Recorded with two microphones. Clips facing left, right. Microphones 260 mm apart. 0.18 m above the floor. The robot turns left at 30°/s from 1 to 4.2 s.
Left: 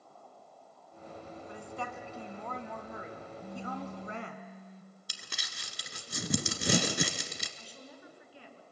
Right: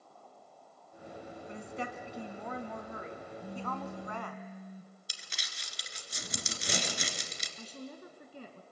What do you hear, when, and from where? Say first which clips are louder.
1.5 s a woman speaking: right 2 dB; 135° right, 1.9 m; by 4.4 s 140° left, 1.9 m
3.4 s a phone buzzing: even; 5° right (ahead or behind), 1.6 m; by 4.9 s 15° right (ahead or behind), 1.6 m
5.1 s crumpling: left 4 dB; 65° left (ahead or behind), 1.4 m
7.6 s a woman speaking: right 6 dB; 50° right (ahead or behind), 2 m